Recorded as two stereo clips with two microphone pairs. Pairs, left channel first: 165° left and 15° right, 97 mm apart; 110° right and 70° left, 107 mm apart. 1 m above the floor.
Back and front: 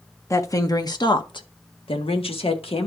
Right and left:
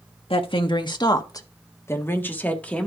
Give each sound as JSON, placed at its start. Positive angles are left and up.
{"t": 0.3, "sound": "a woman speaking", "azimuth_deg": -140, "distance_m": 1.3}